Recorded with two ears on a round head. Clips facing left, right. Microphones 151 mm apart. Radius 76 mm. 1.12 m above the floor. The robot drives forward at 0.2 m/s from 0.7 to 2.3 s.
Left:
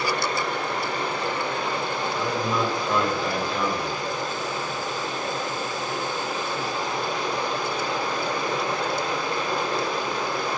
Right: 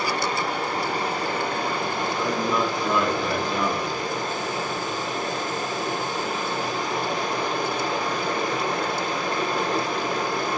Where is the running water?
30° right (ahead or behind), 1.2 m; by 10.6 s 40° right (ahead or behind), 0.9 m.